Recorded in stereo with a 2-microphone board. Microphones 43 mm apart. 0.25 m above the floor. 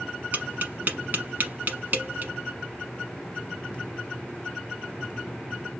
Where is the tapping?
45° right (ahead or behind), 0.8 m.